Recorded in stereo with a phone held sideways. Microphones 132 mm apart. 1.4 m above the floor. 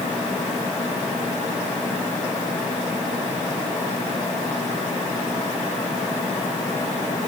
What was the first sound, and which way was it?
Only background noise.